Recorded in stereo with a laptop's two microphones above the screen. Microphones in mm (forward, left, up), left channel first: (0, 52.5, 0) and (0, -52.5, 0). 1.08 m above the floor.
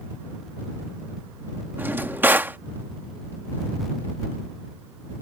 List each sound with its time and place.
1.8 s a drawer: 20° right (ahead or behind)